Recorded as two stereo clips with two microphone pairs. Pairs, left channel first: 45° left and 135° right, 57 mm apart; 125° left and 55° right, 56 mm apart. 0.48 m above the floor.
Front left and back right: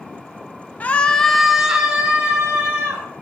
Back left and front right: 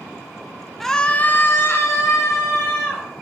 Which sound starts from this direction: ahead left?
A scream, at 0.8 s.